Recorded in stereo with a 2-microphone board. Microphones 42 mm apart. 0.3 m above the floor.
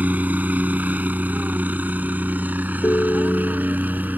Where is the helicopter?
35° right (ahead or behind); by 4.2 s 40° right (ahead or behind).